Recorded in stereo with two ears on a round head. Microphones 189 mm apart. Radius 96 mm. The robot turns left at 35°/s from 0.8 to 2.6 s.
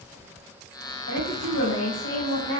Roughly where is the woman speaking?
Left.